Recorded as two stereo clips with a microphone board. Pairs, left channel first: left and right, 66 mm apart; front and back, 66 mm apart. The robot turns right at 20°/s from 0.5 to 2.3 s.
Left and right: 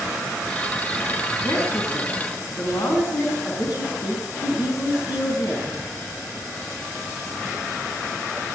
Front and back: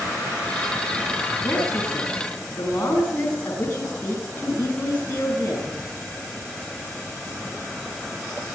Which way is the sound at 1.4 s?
45° left.